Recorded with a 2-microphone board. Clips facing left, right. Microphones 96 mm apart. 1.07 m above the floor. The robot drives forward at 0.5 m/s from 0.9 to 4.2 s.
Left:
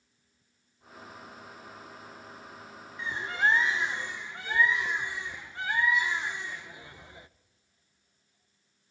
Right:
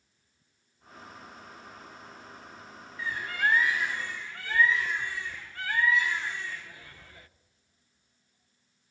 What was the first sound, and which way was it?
A bird, 20° left (ahead or behind).